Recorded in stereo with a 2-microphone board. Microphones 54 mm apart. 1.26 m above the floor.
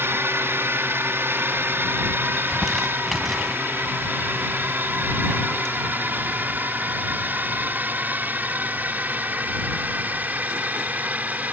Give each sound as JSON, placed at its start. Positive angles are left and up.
{"t": 0.0, "sound": "a drone", "side_deg": -50}
{"t": 2.4, "sound": "crumpling", "side_deg": 5}